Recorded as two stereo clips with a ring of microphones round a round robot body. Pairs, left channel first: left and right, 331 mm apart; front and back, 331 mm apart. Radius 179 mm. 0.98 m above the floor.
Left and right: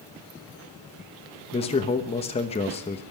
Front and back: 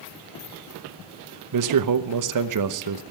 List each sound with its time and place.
1.5 s a man speaking: 160° left, 1.0 m